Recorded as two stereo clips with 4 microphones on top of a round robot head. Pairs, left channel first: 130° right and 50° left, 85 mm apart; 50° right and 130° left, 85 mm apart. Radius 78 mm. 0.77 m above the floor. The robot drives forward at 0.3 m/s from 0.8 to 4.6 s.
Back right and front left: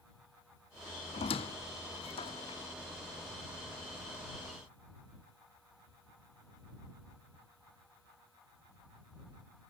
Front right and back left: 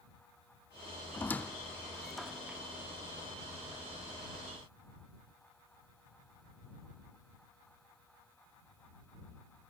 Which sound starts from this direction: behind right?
A squeak, at 1.1 s.